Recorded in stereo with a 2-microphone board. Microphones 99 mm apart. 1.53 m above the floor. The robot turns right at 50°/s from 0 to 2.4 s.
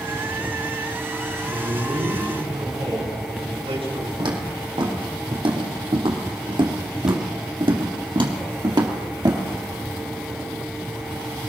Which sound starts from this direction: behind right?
A man speaking, at 1.5 s.